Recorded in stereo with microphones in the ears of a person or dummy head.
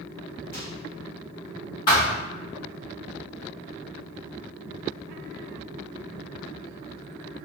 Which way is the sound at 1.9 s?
20° left (ahead or behind).